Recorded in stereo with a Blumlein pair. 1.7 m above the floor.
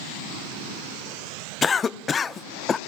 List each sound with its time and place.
1.6 s a cough: 20° left, 0.6 m